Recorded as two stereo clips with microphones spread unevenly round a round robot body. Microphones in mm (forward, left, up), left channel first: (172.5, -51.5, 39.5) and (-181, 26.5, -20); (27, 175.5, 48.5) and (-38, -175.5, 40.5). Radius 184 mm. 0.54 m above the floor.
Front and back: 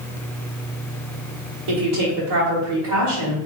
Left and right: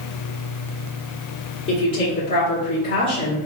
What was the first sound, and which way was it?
A woman speaking, 135° left.